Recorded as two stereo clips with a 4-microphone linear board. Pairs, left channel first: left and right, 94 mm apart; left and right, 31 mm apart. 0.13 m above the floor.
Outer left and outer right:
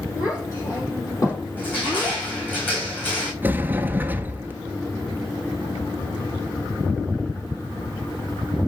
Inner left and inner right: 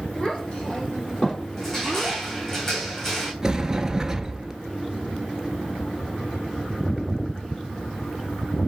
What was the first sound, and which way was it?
A child speaking, 35° left (ahead or behind).